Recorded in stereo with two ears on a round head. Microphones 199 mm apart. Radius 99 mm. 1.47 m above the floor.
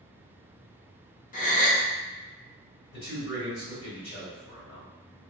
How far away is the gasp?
About 0.6 m.